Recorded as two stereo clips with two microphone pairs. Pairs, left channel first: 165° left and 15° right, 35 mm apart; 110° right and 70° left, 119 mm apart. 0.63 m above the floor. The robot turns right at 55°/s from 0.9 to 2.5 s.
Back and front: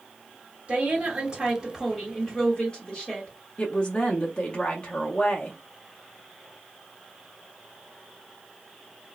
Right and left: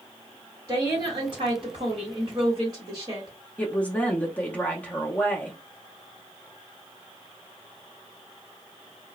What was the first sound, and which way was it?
A woman speaking, 20° left.